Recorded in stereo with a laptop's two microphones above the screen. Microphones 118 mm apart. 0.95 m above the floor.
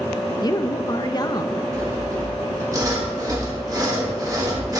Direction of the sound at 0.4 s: 35° left (ahead or behind).